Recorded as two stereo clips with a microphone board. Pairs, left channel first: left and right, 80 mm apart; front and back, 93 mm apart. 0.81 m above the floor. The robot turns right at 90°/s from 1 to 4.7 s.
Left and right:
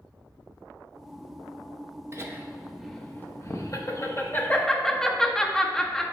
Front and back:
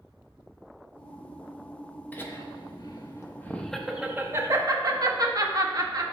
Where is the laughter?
60° right, 0.8 m; by 6.0 s 170° left, 0.8 m.